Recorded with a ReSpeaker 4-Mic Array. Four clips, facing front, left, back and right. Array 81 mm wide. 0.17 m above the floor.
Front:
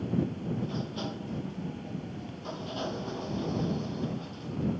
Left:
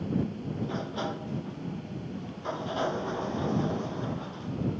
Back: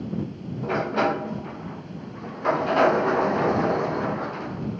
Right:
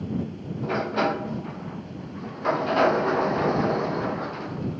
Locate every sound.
0.6 s a sliding door: 150° right